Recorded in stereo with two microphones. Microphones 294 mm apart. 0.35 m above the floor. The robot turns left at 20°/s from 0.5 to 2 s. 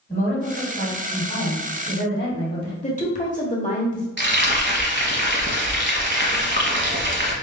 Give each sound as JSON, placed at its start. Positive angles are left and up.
{"t": 0.1, "sound": "a woman speaking", "azimuth_deg": 130, "distance_m": 2.0}
{"t": 2.8, "sound": "a woman speaking", "side_deg": 25, "distance_m": 1.1}
{"t": 4.2, "sound": "frying", "side_deg": -40, "distance_m": 1.0}